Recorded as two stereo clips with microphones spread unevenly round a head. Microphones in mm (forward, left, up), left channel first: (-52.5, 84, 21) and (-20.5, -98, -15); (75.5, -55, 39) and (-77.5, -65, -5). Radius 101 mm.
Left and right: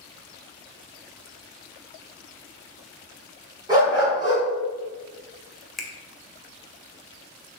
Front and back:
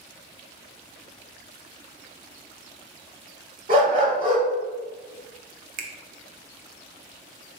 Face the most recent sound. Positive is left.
turn(degrees=175)